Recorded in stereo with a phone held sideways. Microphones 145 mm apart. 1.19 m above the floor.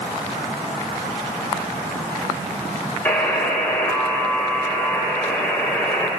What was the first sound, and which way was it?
A buzzer, 10° left (ahead or behind).